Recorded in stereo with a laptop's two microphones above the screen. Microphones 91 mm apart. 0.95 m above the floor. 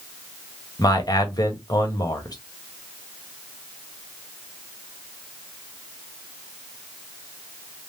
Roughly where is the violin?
No violin in this recording.